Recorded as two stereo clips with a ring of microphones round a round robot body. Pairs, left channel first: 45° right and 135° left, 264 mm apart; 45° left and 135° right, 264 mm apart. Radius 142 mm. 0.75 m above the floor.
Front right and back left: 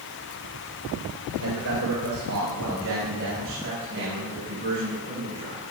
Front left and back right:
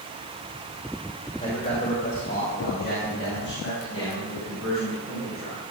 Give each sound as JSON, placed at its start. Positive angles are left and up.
{"t": 1.4, "sound": "a man speaking", "azimuth_deg": 115, "distance_m": 3.5}